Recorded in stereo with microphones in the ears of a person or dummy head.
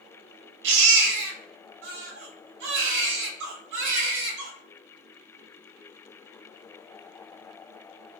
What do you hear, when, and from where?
0.6 s a baby crying: 65° right (ahead or behind), 0.7 m